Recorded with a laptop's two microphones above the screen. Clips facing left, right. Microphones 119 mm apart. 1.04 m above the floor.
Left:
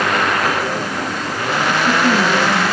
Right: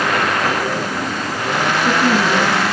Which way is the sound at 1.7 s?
30° right (ahead or behind).